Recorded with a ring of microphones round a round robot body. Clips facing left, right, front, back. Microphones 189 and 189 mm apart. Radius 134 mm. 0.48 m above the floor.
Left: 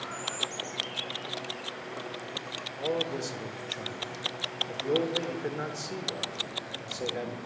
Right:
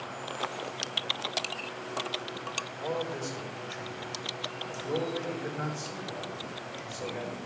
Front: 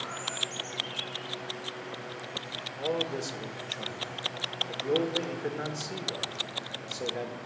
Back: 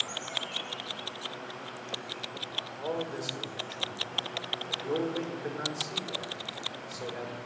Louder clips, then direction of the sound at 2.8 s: Left 3 dB, front 3 dB; 55° left.